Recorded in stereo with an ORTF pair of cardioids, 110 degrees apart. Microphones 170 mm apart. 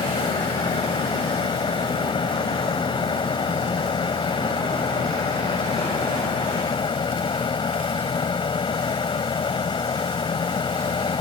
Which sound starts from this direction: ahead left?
A fan, at 0.0 s.